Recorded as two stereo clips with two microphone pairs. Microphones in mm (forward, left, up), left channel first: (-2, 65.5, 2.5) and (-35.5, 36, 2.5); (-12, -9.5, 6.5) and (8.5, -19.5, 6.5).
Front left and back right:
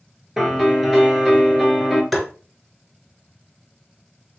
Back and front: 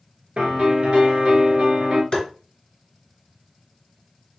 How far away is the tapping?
About 1.9 m.